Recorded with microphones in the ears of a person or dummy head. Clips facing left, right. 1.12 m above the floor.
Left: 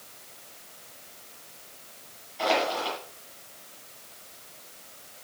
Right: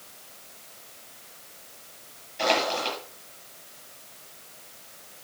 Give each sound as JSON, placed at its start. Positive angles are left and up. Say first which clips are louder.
{"t": 2.4, "sound": "crushing", "louder": "even", "side_deg": -30, "distance_m": 8.5}